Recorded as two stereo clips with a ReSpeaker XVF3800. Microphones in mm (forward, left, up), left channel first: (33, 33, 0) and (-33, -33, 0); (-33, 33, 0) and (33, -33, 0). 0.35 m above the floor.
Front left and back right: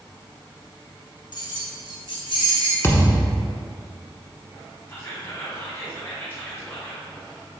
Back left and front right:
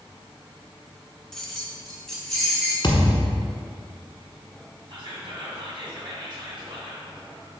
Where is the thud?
105° left, 1.1 m.